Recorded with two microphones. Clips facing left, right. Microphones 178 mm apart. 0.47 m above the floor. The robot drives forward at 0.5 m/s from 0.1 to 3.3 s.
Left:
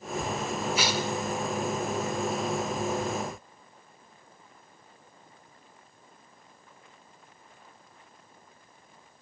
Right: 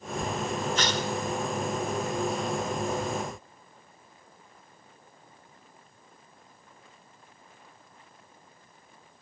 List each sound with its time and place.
0.8 s tearing paper: 10° left (ahead or behind), 1.3 m